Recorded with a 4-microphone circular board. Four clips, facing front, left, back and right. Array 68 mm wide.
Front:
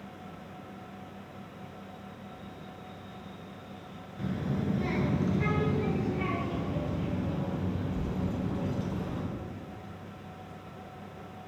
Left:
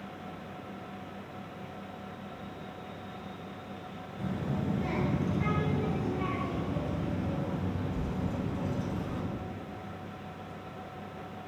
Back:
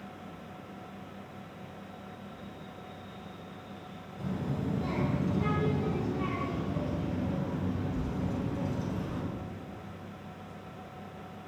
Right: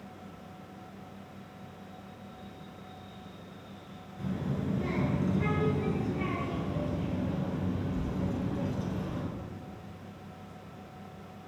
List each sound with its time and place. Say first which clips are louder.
4.2 s a child speaking: even, front 2 dB; 15° left, 1.2 m; by 9.2 s 45° right, 3 m